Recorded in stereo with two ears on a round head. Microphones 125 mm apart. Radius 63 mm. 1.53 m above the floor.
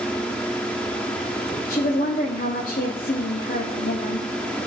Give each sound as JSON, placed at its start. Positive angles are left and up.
{"t": 1.7, "sound": "a woman speaking", "side_deg": 75, "distance_m": 1.0}